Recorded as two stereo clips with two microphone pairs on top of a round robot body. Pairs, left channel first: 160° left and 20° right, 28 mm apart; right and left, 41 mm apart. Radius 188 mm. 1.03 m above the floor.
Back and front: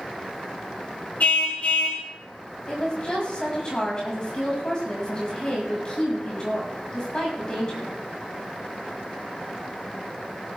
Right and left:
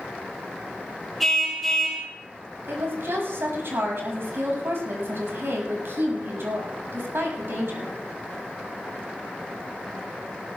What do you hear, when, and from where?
1.2 s a car horn: 175° right, 3 m
2.7 s a woman speaking: 100° left, 7 m